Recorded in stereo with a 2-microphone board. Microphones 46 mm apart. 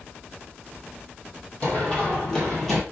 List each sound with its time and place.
1.6 s running footsteps: 30° left (ahead or behind), 1.9 m; by 2.8 s 5° left (ahead or behind), 1.3 m